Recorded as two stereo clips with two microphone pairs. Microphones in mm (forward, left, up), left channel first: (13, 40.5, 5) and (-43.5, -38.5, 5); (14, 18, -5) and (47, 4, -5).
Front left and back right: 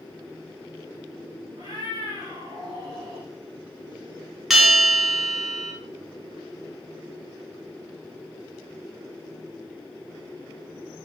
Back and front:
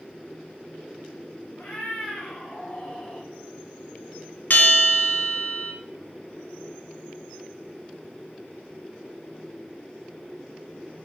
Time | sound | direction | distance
1.6 | a cat meowing | 160° right | 3.5 m
4.5 | a bell | 145° left | 1.3 m